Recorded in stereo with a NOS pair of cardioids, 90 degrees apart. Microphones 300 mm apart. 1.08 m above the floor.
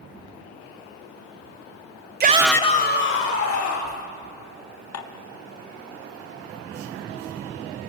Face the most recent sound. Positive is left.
turn(degrees=55)